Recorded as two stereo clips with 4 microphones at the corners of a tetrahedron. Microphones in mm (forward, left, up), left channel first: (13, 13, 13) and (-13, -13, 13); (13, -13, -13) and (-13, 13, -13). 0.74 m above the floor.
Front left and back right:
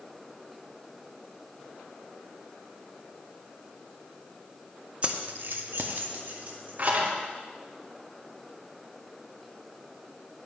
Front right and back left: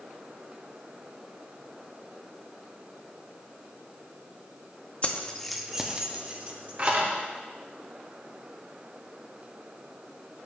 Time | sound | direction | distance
5.0 | keys jangling | 85° right | 0.5 m